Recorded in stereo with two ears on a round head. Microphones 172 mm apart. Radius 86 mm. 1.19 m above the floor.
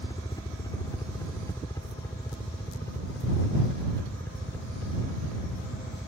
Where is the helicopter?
20° left (ahead or behind); by 6.1 s 10° left (ahead or behind).